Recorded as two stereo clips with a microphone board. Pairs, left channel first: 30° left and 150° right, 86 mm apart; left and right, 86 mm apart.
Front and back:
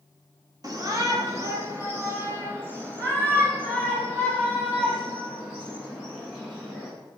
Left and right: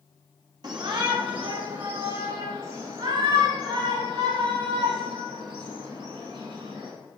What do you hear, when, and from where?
0.6 s a shout: 110° right, 1.7 m; by 6.9 s 75° right, 8.5 m